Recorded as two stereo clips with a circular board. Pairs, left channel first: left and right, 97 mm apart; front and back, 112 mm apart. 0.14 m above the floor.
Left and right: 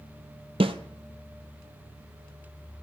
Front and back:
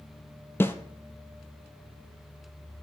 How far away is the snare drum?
About 0.7 m.